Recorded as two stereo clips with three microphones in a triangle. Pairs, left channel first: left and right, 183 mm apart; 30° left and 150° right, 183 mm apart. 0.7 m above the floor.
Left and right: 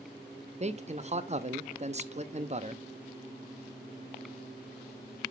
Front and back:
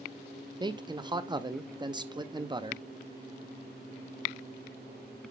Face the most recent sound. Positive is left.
turn(degrees=-100)